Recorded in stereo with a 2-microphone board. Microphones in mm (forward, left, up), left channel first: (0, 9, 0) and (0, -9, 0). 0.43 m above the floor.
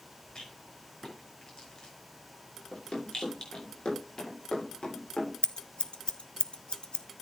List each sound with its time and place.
0.3 s a rattle: 50° left (ahead or behind), 5.5 m
2.7 s running footsteps: 75° left (ahead or behind), 8 m; by 5.3 s 70° left (ahead or behind), 9 m
5.4 s scissors: 75° left (ahead or behind), 1.0 m